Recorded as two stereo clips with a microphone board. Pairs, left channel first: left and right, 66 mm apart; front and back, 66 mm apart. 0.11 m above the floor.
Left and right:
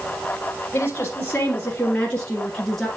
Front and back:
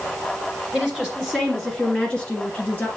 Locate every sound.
0.7 s a woman speaking: 105° left, 1.8 m; by 2.9 s 5° left, 1.7 m